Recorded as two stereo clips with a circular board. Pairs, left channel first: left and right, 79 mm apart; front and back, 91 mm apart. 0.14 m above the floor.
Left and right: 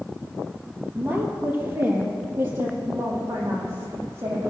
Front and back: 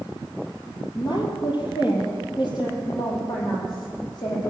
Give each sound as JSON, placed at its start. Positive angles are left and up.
{"t": 0.9, "sound": "a woman speaking", "azimuth_deg": -25, "distance_m": 3.0}